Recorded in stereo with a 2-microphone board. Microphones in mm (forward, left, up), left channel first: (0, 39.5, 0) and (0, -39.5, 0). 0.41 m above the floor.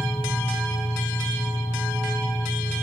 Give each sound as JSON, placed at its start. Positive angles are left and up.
{"t": 0.0, "sound": "an engine running", "side_deg": 10, "distance_m": 2.5}